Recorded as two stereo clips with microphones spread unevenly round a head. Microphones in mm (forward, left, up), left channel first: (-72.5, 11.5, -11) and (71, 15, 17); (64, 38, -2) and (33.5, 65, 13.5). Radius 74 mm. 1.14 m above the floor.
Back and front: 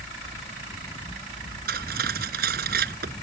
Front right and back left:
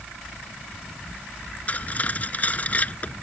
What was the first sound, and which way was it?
Cutlery clinking, 10° left.